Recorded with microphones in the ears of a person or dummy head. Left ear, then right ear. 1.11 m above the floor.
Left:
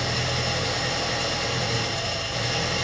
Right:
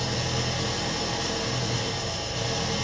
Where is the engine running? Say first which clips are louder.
Left 3 dB; 45° left (ahead or behind), 1.2 m.